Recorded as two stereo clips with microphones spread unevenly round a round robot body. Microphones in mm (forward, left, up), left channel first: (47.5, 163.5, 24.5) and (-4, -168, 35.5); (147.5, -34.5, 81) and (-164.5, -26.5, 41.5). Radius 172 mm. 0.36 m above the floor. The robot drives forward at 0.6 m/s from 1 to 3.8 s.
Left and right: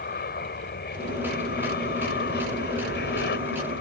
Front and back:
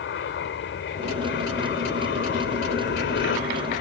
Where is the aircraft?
35° left; by 3.8 s 40° left.